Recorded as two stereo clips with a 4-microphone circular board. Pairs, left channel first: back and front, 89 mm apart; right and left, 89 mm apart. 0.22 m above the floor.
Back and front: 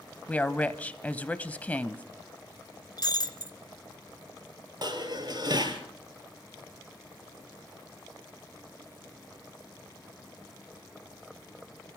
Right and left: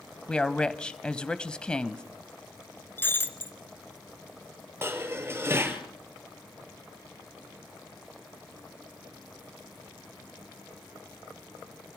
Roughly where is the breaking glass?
Behind right.